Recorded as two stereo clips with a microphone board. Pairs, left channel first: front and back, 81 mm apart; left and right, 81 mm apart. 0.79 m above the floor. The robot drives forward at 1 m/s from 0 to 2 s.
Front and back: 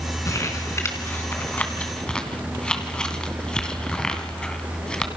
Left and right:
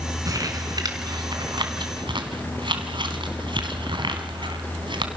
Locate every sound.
0.2 s crumpling: 50° right, 3.5 m; by 5.1 s 80° right, 2.5 m